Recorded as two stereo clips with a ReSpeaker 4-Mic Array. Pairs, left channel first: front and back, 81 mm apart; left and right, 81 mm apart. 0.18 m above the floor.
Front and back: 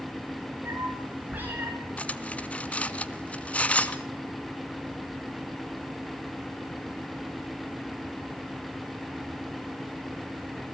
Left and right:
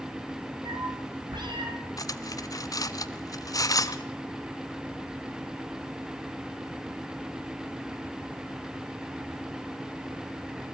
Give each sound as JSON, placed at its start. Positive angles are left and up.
{"t": 0.7, "sound": "a cat meowing", "azimuth_deg": -115, "distance_m": 6.0}
{"t": 2.0, "sound": "cutlery clinking", "azimuth_deg": 70, "distance_m": 1.0}